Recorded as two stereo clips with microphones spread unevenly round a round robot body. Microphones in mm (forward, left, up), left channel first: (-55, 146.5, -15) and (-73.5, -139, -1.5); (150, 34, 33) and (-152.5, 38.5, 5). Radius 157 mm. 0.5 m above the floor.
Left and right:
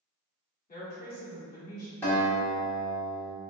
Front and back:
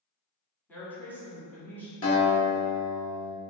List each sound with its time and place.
0.7 s a woman speaking: 90° left, 1.3 m
2.0 s a guitar: 15° left, 1.3 m